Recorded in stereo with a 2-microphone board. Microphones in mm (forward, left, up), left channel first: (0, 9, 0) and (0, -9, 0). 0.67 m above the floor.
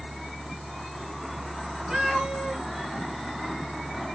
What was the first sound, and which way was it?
A cat meowing, 10° right (ahead or behind).